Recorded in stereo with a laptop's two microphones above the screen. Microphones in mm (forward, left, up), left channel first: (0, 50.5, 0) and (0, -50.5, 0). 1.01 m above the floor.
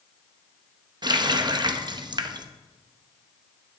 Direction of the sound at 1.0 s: 45° right (ahead or behind).